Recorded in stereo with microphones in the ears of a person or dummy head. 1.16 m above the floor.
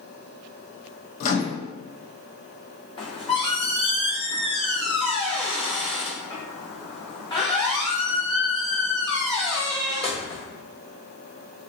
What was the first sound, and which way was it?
A microwave, 50° left (ahead or behind).